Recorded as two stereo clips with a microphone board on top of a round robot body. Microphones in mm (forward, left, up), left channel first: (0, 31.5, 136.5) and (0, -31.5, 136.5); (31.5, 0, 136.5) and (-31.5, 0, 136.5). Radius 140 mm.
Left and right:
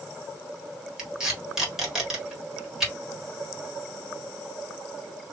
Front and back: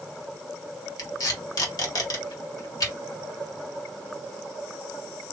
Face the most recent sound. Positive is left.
turn(degrees=-5)